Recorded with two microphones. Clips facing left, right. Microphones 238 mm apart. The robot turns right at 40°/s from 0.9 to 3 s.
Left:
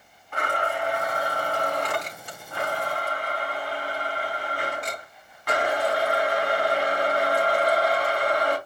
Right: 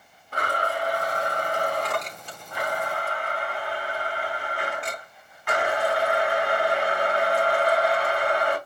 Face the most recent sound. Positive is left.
turn(degrees=45)